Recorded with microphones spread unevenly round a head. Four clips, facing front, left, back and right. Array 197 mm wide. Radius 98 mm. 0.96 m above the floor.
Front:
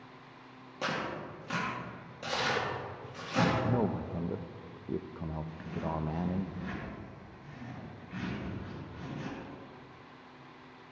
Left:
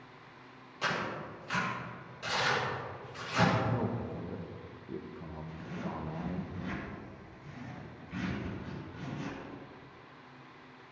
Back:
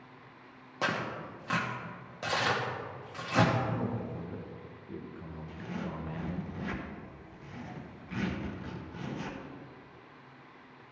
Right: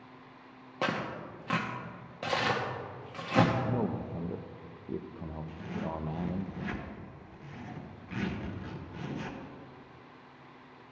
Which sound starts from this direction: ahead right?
A man speaking, at 3.6 s.